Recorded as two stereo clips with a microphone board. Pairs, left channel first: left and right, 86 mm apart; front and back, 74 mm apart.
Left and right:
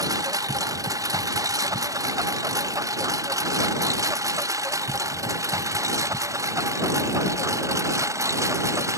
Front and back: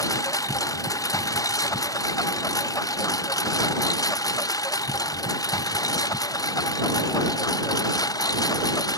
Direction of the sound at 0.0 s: 40° right.